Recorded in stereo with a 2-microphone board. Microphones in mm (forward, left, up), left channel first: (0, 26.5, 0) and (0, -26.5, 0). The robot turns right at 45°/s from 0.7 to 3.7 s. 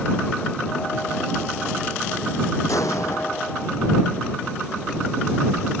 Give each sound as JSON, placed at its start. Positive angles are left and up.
{"t": 2.7, "sound": "an explosion", "azimuth_deg": 90}